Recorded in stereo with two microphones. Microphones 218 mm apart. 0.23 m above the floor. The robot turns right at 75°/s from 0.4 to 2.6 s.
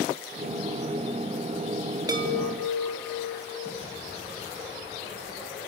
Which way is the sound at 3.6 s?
50° left (ahead or behind).